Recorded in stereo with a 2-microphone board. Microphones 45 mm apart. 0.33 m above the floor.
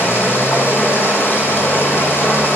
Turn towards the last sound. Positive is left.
turn(degrees=60)  # may be behind; listen again after turning